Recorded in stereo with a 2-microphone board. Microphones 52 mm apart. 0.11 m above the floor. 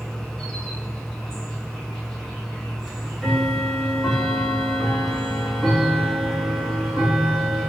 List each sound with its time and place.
0.0 s an insect: 10° left (ahead or behind), 1.2 m
2.8 s ticking: centre (ahead or behind), 0.6 m